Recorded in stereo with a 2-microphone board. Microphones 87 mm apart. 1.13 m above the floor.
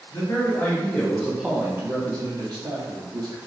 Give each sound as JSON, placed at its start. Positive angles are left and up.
{"t": 0.1, "sound": "a man speaking", "side_deg": 45, "distance_m": 0.8}